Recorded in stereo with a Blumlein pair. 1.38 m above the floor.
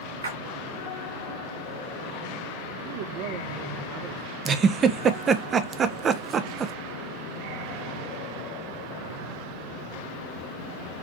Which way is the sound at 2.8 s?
45° right.